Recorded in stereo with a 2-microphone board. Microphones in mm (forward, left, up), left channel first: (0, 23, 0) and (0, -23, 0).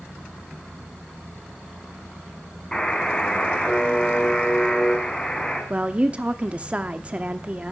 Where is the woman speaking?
25° right (ahead or behind), 0.7 m.